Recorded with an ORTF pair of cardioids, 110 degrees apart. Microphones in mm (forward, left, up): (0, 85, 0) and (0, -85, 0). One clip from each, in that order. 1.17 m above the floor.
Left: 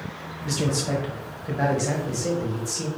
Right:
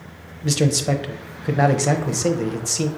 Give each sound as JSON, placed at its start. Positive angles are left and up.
{"t": 0.4, "sound": "a man speaking", "azimuth_deg": -45, "distance_m": 0.7}